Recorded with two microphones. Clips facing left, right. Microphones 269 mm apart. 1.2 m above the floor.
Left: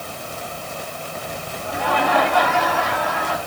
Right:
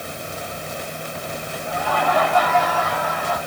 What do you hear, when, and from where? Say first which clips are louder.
1.6 s laughter: left 1 dB; 75° left (ahead or behind), 2.5 m